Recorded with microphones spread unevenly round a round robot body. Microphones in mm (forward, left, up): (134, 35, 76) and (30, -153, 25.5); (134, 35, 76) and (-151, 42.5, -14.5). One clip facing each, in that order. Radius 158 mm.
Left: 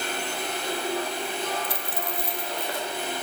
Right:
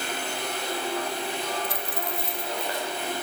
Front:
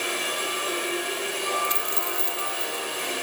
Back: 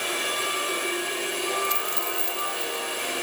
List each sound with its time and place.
1.6 s a dropped coin: 45° left